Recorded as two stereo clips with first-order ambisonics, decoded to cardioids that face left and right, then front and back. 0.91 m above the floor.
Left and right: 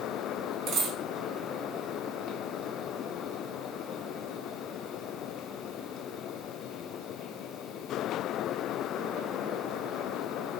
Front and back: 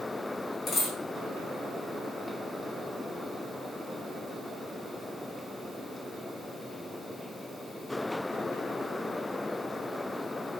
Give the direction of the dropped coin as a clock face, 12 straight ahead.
2 o'clock.